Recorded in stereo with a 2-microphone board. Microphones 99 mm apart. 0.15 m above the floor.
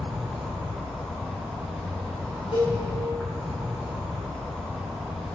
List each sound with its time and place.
0.0 s an insect: 5° left (ahead or behind), 6 m
2.5 s a cowbell: 70° left (ahead or behind), 7 m